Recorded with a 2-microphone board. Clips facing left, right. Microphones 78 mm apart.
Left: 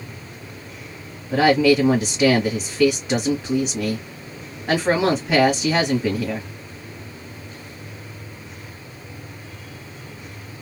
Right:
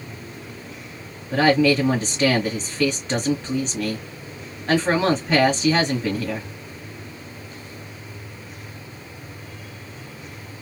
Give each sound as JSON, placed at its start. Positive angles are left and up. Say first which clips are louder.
{"t": 1.3, "sound": "a woman speaking", "louder": "left 2 dB", "side_deg": 10, "distance_m": 1.4}